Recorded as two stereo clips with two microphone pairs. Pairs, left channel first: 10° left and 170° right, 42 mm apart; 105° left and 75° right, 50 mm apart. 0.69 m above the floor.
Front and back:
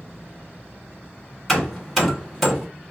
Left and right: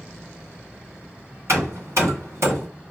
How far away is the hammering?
About 1.7 m.